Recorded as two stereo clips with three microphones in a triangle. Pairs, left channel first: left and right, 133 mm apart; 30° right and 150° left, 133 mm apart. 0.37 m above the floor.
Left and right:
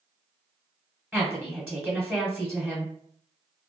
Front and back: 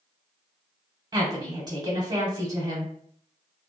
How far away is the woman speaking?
About 1.1 m.